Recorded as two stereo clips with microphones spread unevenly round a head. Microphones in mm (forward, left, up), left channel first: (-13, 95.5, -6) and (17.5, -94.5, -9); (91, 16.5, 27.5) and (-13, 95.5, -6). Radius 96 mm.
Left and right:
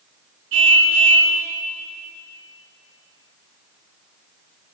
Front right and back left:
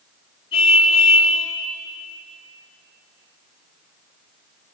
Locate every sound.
0.5 s a car horn: 100° right, 7.5 m